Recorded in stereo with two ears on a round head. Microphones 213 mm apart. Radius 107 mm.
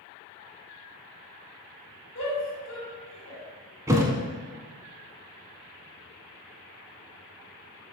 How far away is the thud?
About 0.8 m.